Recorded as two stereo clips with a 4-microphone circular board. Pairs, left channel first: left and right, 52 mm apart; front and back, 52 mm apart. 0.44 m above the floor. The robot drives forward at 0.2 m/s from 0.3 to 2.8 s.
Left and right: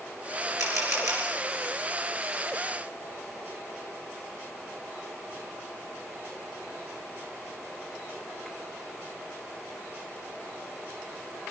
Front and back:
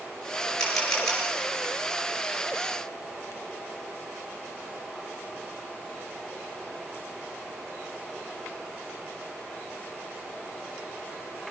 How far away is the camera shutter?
About 7.5 m.